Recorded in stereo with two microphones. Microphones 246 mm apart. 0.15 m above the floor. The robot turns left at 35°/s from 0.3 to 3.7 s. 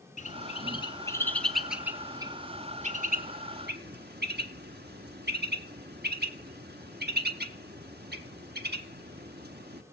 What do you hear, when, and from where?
0.2 s a bird: 30° left (ahead or behind), 1.0 m; by 9.8 s 45° right (ahead or behind), 1.0 m